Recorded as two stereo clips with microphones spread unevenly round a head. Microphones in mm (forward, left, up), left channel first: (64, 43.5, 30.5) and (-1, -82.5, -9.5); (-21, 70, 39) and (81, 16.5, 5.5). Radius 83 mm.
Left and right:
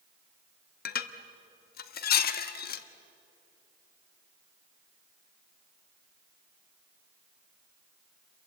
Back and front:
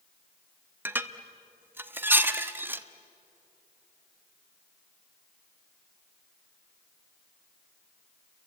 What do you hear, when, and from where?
0.8 s dishes clattering: 45° left, 1.2 m